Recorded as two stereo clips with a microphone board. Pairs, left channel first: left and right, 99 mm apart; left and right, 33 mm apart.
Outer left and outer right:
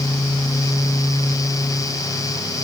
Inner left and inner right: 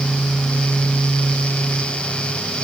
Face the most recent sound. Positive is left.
No sound to turn to.